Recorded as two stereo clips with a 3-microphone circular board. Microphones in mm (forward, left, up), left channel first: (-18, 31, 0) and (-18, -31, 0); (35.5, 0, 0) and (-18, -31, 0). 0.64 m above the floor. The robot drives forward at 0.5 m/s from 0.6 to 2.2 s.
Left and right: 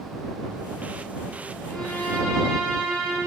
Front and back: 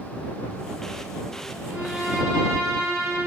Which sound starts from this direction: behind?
A violin, at 1.7 s.